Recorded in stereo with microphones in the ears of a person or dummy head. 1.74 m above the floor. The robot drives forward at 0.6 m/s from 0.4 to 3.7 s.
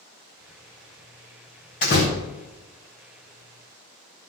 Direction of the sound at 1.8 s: 35° left (ahead or behind).